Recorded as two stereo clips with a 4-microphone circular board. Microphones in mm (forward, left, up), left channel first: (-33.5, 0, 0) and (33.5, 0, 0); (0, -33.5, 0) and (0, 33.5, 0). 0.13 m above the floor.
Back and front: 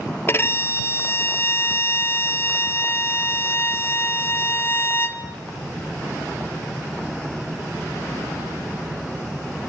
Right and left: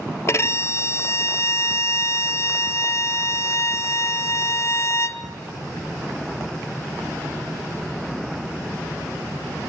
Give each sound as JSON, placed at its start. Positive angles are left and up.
{"t": 0.3, "sound": "a violin", "azimuth_deg": -130, "distance_m": 0.8}